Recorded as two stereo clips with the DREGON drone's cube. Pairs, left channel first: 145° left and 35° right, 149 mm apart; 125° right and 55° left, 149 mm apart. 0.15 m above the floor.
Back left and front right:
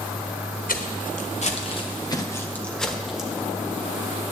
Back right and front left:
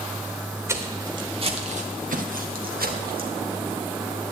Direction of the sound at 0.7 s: 125° left.